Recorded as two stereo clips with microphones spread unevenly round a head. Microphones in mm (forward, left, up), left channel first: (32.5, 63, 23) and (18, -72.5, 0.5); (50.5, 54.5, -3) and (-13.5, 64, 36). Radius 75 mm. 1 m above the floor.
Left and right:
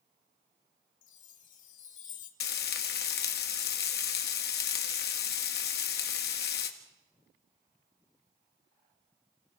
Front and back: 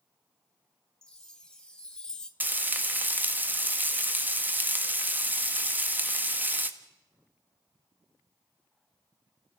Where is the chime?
90° left, 1.4 m.